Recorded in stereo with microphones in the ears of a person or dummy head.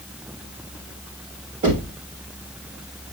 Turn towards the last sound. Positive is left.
turn(degrees=-35)  # may be behind; listen again after turning